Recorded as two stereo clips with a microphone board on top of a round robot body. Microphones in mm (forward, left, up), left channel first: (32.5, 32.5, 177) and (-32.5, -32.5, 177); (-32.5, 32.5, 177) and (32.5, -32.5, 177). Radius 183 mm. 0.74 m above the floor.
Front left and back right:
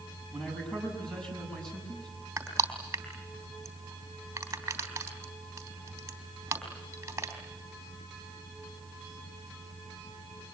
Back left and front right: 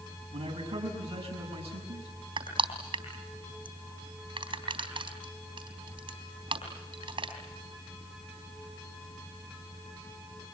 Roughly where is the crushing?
Right.